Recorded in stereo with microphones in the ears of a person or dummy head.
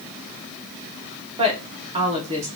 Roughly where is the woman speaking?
Right.